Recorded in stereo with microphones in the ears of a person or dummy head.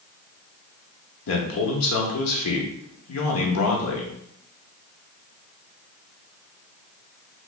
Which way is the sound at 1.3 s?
85° left.